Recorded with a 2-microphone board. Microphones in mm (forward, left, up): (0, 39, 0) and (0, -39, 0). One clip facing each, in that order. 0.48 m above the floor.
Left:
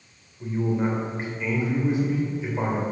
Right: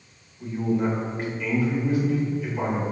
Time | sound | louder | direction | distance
0.4 | a man speaking | right 1 dB | 20° left (ahead or behind) | 2 m